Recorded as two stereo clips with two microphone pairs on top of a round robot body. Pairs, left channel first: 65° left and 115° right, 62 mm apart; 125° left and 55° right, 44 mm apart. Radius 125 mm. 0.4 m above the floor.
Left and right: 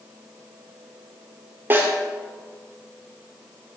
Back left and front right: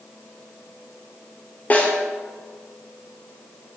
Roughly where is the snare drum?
Behind.